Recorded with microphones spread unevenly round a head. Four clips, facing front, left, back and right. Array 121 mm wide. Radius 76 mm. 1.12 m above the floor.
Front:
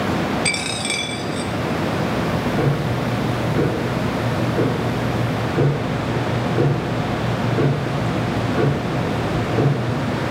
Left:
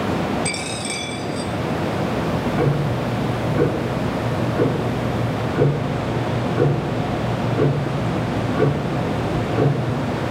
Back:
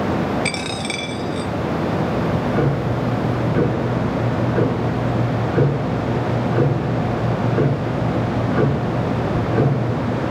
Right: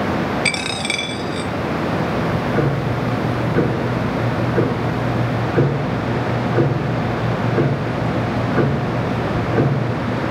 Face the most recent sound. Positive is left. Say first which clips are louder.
# right 1 dB, back 1 dB
turn(degrees=-110)